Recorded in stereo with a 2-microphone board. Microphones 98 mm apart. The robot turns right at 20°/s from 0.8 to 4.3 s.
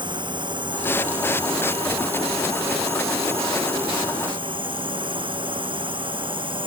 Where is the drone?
130° right; by 6.7 s 60° right.